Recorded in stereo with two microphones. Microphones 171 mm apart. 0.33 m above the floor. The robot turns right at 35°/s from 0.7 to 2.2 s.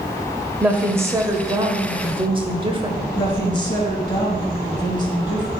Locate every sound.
0.6 s a woman speaking: 160° right, 1.1 m; by 3.0 s 110° right, 1.1 m
3.1 s a woman speaking: 25° left (ahead or behind), 4 m